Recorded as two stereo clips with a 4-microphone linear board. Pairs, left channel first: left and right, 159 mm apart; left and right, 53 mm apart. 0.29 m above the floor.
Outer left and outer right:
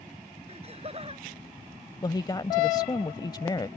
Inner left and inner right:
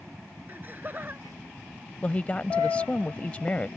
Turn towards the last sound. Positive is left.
turn(degrees=30)  # may be behind; listen again after turning